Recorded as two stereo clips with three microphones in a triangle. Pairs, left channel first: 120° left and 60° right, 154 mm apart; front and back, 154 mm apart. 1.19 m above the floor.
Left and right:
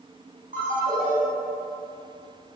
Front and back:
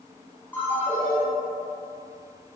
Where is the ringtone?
75° right, 1.5 m.